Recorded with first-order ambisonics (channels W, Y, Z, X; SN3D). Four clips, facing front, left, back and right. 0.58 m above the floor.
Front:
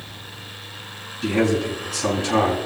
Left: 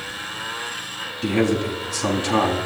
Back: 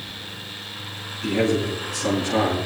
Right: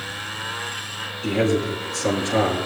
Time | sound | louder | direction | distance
1.2 | a man speaking | left 1 dB, front 1 dB | 65° left | 4.5 m